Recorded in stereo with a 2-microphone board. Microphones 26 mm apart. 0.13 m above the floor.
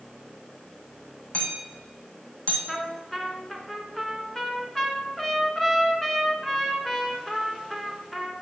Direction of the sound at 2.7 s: 10° left (ahead or behind).